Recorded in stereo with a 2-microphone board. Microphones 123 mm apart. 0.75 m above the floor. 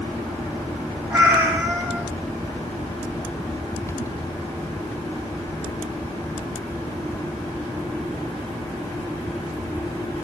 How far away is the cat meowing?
About 0.6 m.